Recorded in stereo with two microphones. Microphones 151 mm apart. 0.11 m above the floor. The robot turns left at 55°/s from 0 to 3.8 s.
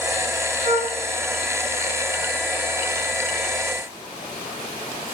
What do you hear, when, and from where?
0.6 s a flute: 30° right (ahead or behind), 4.5 m; by 1.0 s 10° right (ahead or behind), 4.5 m